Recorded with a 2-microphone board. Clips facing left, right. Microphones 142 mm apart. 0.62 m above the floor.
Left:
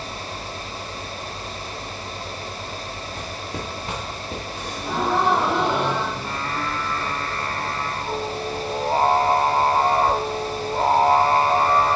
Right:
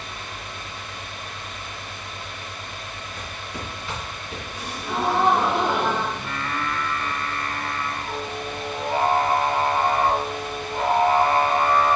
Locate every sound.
3.2 s footsteps: 50° left (ahead or behind), 2.5 m; by 4.4 s 40° left (ahead or behind), 3.5 m
4.5 s a gasp: 70° left (ahead or behind), 4 m
6.2 s singing: 35° left (ahead or behind), 0.8 m